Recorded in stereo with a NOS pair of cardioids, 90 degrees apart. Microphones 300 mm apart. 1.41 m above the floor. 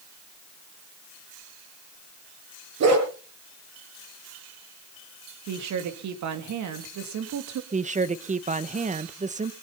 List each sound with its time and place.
2.8 s a dog barking: 60° right, 6.5 m
5.5 s a woman speaking: 70° right, 2 m
7.7 s a woman speaking: 25° right, 1.3 m